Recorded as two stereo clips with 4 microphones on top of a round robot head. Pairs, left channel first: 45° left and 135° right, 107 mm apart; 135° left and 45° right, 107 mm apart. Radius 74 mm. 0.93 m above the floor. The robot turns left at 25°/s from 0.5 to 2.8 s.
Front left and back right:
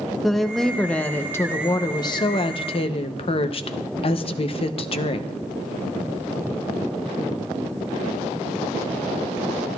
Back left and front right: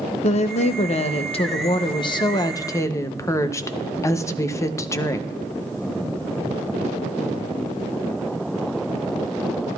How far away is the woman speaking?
About 0.7 m.